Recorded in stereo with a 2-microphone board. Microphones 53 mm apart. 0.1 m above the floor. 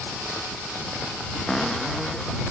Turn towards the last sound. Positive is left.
turn(degrees=5)  # may be behind; listen again after turning